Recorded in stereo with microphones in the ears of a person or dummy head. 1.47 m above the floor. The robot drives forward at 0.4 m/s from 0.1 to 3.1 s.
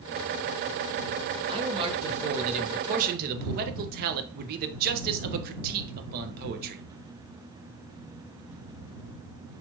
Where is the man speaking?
25° right (ahead or behind), 1.2 m; by 6.8 s 50° right (ahead or behind), 0.7 m.